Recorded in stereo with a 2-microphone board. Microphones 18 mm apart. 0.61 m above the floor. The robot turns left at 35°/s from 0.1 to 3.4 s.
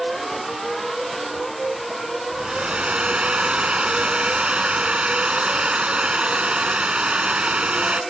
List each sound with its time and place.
2.3 s a hair dryer: 60° right; by 8.0 s 95° right